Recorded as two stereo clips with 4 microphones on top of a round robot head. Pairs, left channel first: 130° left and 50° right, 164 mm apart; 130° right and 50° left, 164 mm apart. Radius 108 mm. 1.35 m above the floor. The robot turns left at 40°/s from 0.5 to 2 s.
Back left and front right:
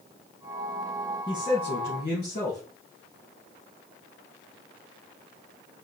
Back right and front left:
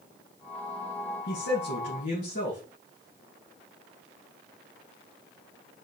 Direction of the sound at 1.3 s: 145° right.